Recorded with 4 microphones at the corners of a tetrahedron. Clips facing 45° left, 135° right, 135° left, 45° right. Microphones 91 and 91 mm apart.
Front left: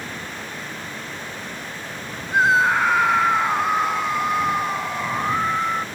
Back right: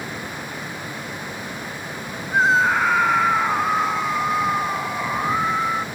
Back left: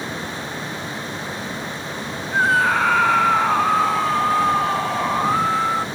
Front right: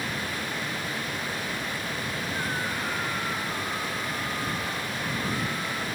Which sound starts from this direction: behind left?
A scream, at 2.3 s.